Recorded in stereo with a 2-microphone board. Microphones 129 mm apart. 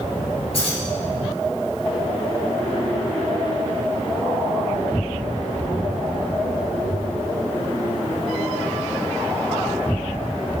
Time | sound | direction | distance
0.5 | keys jangling | 50° left (ahead or behind) | 1.7 m